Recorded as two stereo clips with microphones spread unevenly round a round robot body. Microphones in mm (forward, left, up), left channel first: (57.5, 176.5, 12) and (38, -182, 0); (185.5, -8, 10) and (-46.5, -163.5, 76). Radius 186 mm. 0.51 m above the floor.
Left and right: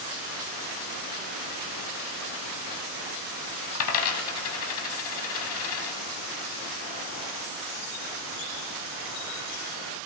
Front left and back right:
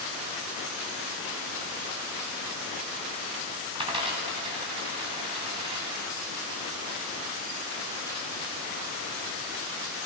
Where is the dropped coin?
140° left, 0.7 m.